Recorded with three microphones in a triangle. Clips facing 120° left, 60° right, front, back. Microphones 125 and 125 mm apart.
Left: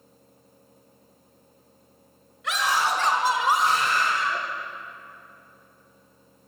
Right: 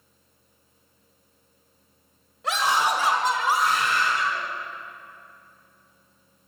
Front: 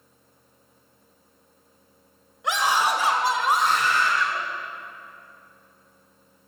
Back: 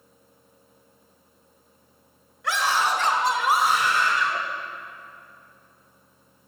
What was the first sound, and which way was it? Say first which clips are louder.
A scream: right 2 dB, front 1 dB; 55° right.